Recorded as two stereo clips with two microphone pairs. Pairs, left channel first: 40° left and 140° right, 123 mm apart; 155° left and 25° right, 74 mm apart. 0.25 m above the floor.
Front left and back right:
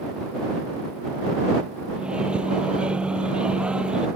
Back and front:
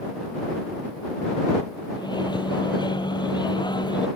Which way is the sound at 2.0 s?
140° left.